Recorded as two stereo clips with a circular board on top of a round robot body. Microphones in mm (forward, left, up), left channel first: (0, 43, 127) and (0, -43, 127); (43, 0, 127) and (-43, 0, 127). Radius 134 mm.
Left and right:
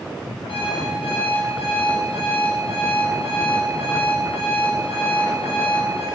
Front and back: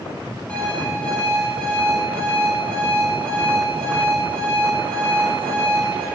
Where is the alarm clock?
80° left, 9.5 m.